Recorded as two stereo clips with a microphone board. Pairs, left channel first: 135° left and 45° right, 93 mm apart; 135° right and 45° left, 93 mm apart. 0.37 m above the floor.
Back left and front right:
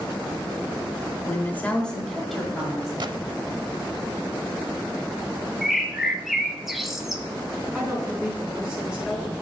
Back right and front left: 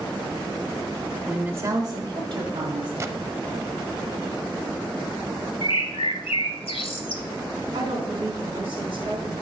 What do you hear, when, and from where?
1.2 s a woman speaking: 120° left, 0.9 m; by 2.9 s 40° left, 2 m
3.0 s a gunshot: 10° right, 0.5 m
5.6 s a bird: 130° right, 0.8 m
7.7 s a woman speaking: 35° left, 3.5 m